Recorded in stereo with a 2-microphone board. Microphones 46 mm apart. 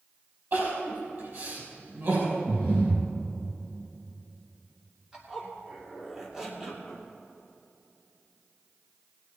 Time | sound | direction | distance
0.5 | crying | 50° right (ahead or behind) | 5 m
2.5 | breathing | 40° right (ahead or behind) | 3.5 m
5.1 | a zipper | 15° right (ahead or behind) | 2.5 m